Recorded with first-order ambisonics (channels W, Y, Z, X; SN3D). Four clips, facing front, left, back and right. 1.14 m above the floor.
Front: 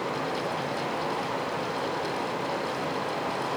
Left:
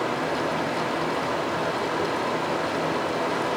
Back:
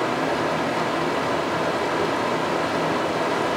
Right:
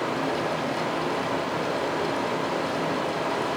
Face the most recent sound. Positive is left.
turn(degrees=170)